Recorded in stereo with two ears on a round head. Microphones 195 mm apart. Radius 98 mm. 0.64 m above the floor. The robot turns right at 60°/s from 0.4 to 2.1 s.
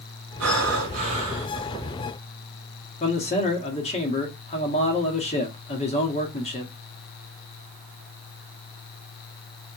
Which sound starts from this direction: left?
A man speaking, at 3.0 s.